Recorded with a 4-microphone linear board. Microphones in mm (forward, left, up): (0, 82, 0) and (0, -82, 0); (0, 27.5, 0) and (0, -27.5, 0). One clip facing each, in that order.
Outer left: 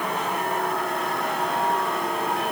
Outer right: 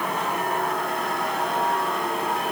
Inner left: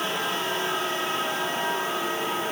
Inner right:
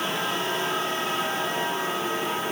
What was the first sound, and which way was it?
Only background noise.